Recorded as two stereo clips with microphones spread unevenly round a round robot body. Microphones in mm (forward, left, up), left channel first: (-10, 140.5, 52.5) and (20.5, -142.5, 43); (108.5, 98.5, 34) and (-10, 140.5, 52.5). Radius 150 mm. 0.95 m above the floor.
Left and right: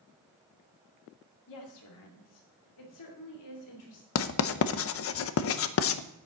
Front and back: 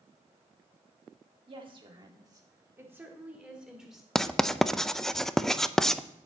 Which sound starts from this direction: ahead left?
Writing, at 4.2 s.